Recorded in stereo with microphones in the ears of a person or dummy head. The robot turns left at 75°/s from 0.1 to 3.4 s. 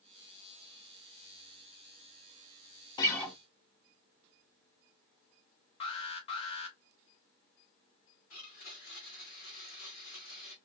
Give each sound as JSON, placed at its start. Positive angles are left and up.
{"t": 3.0, "sound": "a guitar", "side_deg": 30, "distance_m": 0.9}
{"t": 5.8, "sound": "an alarm", "side_deg": 35, "distance_m": 1.2}
{"t": 8.3, "sound": "a blender", "side_deg": 50, "distance_m": 1.3}